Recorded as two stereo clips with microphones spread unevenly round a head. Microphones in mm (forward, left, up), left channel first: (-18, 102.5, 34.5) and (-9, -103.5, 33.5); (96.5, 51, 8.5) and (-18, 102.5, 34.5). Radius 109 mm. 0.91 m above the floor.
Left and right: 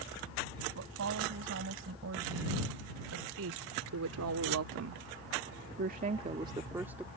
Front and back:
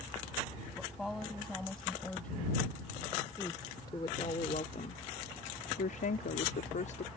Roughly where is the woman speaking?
Behind right.